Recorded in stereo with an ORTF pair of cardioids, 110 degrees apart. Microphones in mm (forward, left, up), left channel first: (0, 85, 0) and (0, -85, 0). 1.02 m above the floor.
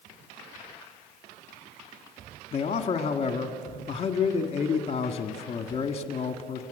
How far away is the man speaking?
About 1.7 m.